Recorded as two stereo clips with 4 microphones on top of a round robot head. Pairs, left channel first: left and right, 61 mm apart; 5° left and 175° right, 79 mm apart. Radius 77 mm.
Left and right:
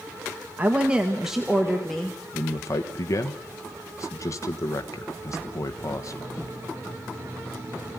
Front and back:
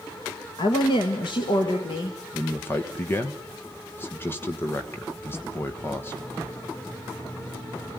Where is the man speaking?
60° left, 1.4 m.